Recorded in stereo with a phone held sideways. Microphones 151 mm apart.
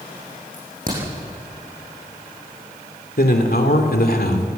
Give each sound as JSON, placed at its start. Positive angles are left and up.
{"t": 0.5, "sound": "a crack", "side_deg": -60, "distance_m": 9.5}
{"t": 3.2, "sound": "a man speaking", "side_deg": 75, "distance_m": 3.0}